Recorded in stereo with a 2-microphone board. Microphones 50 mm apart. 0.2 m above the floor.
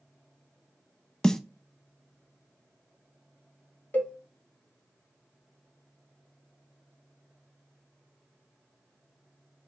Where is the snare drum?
10° left (ahead or behind), 0.6 m.